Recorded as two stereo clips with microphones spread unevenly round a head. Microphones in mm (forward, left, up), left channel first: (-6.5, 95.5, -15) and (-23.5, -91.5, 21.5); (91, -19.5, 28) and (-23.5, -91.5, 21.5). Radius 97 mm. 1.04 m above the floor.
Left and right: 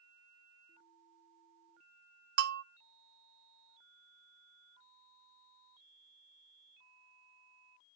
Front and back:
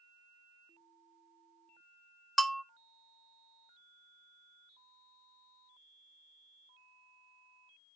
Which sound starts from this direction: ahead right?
A bell, at 2.4 s.